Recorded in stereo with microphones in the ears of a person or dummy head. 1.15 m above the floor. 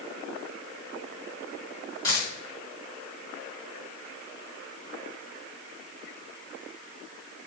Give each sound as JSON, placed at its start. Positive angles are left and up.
{"t": 2.0, "sound": "a dropped coin", "side_deg": 20, "distance_m": 3.0}